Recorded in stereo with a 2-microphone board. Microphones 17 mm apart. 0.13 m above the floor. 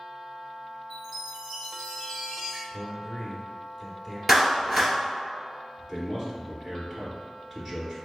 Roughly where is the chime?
Centre.